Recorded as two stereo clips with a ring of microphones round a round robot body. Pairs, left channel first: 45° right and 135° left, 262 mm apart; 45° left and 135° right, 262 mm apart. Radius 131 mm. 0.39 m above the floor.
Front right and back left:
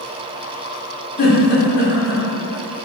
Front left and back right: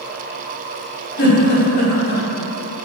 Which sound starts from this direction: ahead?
A giggle, at 1.2 s.